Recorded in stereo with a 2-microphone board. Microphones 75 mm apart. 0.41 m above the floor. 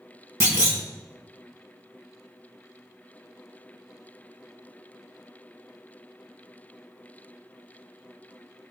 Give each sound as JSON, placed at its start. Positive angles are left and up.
{"t": 0.4, "sound": "a clunk", "side_deg": -40, "distance_m": 1.6}